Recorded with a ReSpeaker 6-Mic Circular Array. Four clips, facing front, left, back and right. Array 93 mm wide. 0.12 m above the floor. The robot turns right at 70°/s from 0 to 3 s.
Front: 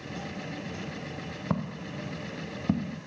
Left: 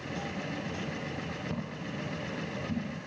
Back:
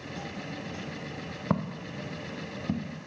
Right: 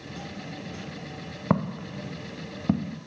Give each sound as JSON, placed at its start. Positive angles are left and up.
{"t": 1.5, "sound": "footsteps", "azimuth_deg": -105, "distance_m": 0.7}